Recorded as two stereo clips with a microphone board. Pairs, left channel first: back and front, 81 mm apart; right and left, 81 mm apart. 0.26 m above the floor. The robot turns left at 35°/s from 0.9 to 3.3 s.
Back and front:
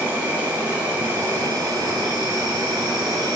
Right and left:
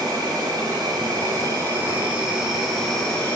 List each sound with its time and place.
0.0 s an insect: 65° left, 1.2 m; by 3.4 s 20° right, 1.2 m